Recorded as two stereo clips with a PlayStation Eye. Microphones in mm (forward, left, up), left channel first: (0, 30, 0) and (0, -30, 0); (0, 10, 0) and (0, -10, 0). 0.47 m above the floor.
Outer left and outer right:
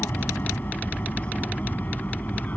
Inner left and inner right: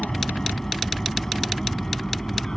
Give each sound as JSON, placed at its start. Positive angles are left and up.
{"t": 0.0, "sound": "an aircraft", "side_deg": 35}